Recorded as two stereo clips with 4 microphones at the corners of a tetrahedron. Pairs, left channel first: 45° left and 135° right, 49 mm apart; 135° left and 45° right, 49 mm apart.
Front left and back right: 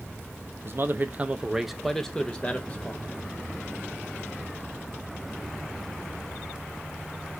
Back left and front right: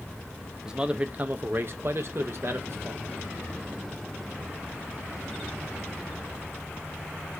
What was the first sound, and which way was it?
A man speaking, 120° right.